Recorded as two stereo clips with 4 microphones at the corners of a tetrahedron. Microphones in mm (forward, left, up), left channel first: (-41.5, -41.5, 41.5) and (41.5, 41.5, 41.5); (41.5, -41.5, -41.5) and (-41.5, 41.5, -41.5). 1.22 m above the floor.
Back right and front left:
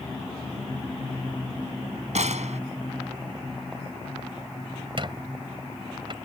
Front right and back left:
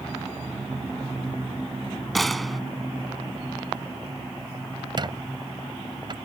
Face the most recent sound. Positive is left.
turn(degrees=85)